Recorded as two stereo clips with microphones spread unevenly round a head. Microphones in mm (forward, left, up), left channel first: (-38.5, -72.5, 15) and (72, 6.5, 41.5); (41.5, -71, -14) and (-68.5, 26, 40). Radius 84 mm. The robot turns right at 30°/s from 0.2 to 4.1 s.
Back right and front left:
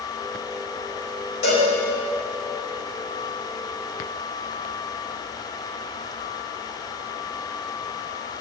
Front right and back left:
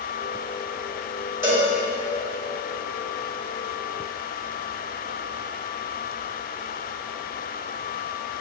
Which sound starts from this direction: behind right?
A cowbell, at 1.4 s.